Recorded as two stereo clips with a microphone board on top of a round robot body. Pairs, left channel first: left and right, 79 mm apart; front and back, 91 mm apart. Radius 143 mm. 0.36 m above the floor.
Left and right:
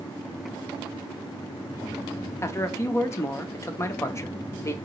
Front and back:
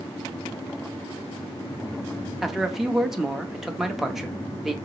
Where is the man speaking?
95° left, 0.9 m.